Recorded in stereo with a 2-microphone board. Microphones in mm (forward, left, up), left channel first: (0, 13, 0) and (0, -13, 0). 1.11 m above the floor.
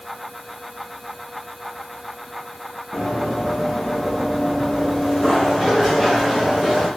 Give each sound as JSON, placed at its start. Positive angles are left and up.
{"t": 2.9, "sound": "running footsteps", "side_deg": 35, "distance_m": 4.5}